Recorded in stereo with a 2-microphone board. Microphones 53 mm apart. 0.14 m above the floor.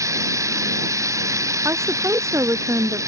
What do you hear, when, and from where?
0.0 s running water: 75° right (ahead or behind)
1.6 s a woman speaking: 60° right (ahead or behind)